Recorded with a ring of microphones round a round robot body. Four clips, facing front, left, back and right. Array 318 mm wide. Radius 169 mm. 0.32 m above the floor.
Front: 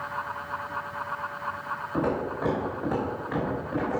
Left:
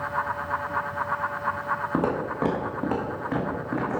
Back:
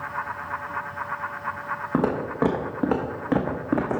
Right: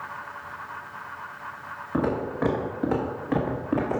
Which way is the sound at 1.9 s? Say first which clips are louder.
Right 3 dB, back 4 dB; 155° left.